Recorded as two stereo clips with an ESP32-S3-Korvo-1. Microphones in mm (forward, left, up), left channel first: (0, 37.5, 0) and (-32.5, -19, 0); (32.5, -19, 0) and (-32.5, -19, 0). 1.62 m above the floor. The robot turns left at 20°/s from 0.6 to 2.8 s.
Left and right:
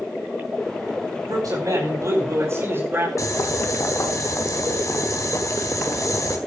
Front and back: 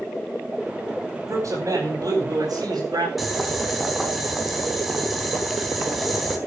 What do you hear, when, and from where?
1.3 s a man speaking: 145° right, 9 m; by 3.1 s 175° right, 9 m
3.2 s boiling: 90° left, 3.5 m